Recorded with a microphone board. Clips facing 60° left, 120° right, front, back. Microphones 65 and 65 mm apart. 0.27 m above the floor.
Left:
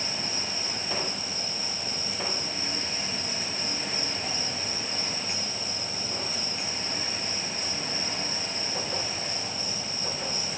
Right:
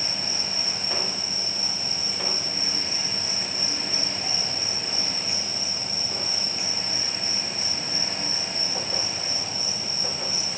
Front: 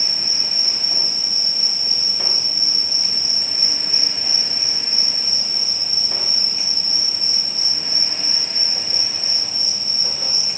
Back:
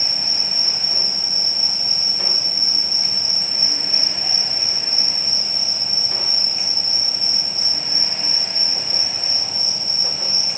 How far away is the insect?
About 1.7 m.